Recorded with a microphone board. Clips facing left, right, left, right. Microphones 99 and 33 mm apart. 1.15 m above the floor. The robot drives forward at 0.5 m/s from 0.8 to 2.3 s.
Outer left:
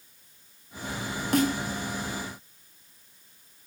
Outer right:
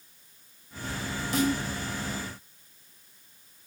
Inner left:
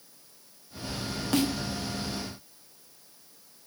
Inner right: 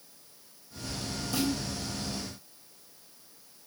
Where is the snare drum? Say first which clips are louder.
Outer left 2 dB, inner left 4 dB; 65° left (ahead or behind), 0.5 m; by 1.5 s 55° left (ahead or behind), 0.6 m.